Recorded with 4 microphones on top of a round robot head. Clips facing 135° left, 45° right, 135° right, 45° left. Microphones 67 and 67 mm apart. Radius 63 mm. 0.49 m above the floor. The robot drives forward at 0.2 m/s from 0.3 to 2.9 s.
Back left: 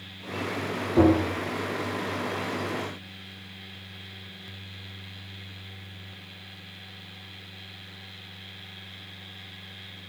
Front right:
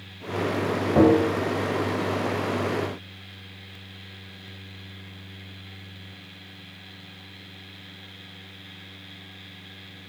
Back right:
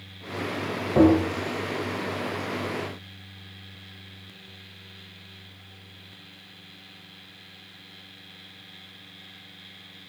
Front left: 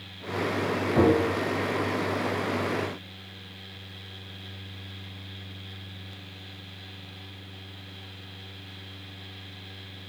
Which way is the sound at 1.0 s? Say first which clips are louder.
Front right 2 dB, back right 4 dB; 70° right.